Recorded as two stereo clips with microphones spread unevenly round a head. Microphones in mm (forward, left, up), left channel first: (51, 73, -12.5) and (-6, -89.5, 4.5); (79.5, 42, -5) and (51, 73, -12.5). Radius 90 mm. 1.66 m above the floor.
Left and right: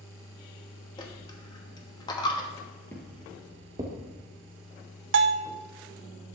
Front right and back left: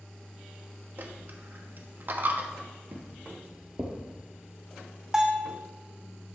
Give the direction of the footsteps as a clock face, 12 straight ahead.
7 o'clock.